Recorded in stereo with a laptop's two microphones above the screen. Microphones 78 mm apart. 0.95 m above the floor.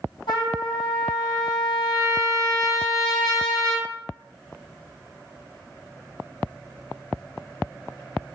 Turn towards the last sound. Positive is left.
turn(degrees=80)